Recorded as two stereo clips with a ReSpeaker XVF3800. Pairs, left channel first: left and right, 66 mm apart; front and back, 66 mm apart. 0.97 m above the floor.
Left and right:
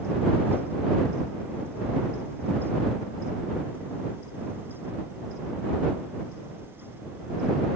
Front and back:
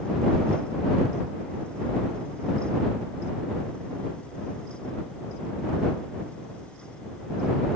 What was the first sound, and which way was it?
Only background noise.